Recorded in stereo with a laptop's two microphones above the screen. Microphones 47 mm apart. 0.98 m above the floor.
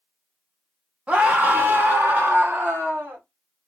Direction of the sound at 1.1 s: 25° right (ahead or behind).